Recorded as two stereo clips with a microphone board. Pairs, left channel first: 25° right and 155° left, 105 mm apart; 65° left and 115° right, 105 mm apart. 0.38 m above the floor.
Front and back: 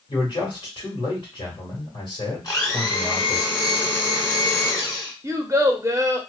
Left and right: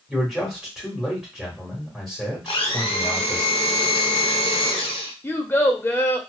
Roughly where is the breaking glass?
I don't hear breaking glass.